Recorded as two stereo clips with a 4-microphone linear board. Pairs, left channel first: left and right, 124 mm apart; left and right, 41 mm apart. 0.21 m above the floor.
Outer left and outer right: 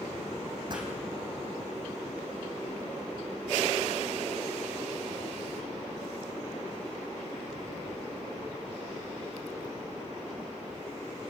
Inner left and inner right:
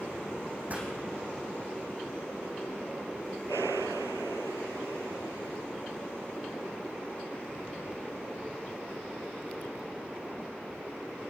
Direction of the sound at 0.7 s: 35° right (ahead or behind).